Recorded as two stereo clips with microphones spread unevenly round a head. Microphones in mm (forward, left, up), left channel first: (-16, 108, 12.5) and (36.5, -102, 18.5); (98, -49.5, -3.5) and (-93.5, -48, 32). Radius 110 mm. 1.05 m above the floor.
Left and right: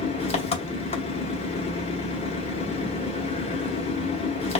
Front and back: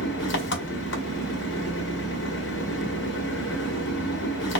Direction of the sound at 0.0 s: 40° left.